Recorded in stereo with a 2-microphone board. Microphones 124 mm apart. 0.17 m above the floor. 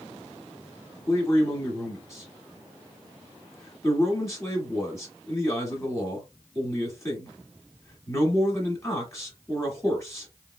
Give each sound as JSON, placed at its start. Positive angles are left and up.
{"t": 1.1, "sound": "a man speaking", "side_deg": 25, "distance_m": 1.4}